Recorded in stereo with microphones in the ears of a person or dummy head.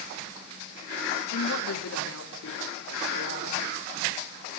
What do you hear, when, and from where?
1.3 s a woman speaking: 85° left, 2.5 m; by 3.6 s 90° left, 4.5 m